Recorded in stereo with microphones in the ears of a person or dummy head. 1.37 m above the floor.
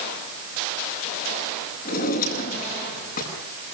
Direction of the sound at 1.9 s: 45° left (ahead or behind).